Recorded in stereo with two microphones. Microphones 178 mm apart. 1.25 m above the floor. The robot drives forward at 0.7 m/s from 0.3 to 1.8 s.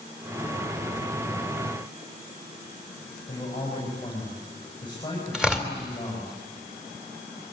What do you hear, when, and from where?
3.3 s a man speaking: 25° left (ahead or behind), 8 m
5.3 s tearing paper: 5° right (ahead or behind), 3 m